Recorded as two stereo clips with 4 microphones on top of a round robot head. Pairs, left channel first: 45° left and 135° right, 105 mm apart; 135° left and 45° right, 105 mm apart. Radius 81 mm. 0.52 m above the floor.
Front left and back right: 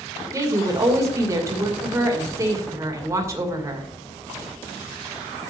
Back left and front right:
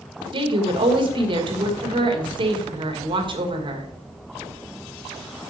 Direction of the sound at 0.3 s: 75° right.